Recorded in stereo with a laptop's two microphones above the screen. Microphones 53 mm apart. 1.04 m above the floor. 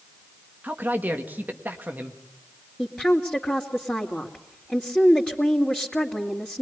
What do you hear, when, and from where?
0.6 s a man speaking: 35° right (ahead or behind), 1.7 m
2.8 s a woman speaking: 15° left (ahead or behind), 2.5 m